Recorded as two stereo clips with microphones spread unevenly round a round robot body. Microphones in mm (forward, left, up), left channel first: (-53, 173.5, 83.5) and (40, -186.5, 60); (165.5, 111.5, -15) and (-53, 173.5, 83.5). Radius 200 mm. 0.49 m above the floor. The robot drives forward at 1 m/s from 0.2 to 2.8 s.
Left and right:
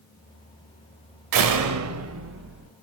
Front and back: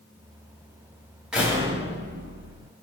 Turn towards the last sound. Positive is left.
turn(degrees=-140)